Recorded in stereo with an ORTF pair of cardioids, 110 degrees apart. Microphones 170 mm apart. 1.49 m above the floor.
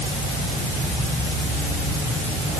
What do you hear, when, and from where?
Only background noise.